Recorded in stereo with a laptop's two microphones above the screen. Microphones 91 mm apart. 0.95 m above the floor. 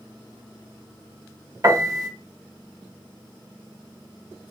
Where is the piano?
40° right (ahead or behind), 0.6 m.